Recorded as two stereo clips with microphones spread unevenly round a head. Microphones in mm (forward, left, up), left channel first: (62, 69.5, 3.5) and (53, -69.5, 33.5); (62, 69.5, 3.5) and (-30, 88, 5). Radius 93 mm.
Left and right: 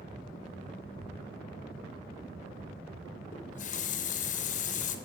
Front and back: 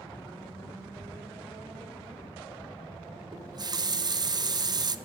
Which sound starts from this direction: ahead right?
Ticking, at 1.0 s.